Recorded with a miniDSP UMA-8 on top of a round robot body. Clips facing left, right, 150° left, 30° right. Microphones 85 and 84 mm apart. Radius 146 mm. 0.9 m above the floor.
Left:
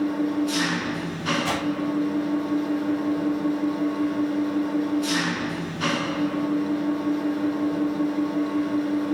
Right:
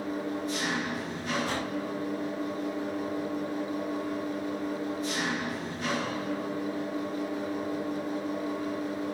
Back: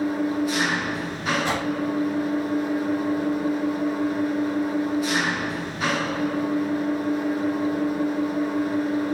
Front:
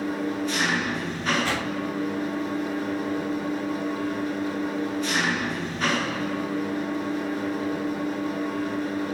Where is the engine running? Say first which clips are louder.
Left 9 dB, back 4 dB; 70° left, 8 m.